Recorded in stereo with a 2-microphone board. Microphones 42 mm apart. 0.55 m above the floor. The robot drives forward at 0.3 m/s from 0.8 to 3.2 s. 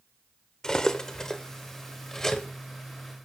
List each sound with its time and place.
0.6 s cutlery clinking: 20° left (ahead or behind), 0.9 m; by 2.5 s 10° left (ahead or behind), 1.4 m